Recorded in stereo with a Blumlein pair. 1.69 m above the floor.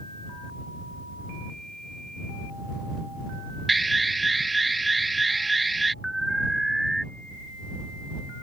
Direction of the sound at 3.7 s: 10° right.